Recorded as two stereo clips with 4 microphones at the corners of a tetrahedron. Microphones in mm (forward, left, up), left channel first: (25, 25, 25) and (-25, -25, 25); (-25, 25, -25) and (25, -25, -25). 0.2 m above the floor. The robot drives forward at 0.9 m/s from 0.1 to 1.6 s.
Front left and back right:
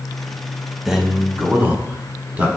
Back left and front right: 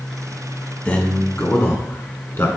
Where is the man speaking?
150° left, 1.0 m; by 2.5 s 170° left, 1.3 m.